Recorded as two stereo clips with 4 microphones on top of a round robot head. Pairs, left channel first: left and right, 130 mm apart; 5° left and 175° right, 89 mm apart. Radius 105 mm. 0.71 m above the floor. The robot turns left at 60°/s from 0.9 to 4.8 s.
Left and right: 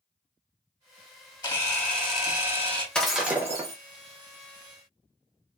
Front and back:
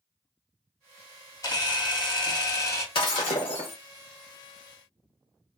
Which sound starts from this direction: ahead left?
A camera shutter, at 1.4 s.